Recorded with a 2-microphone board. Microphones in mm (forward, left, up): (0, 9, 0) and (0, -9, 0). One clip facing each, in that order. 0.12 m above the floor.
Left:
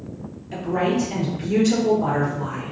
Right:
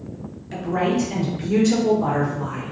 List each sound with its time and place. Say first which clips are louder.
0.5 s a woman speaking: even; 35° right (ahead or behind), 1.4 m; by 2.7 s 10° left (ahead or behind), 1.5 m